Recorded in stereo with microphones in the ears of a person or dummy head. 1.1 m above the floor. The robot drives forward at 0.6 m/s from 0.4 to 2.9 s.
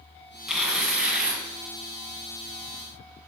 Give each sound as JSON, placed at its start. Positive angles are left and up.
{"t": 0.5, "sound": "tearing paper", "side_deg": -5, "distance_m": 2.5}